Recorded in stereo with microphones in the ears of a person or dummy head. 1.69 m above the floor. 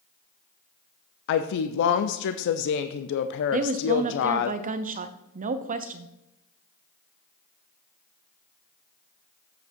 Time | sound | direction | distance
1.3 | a woman speaking | 60° left (ahead or behind) | 0.5 m
3.5 | a woman speaking | 45° right (ahead or behind) | 0.7 m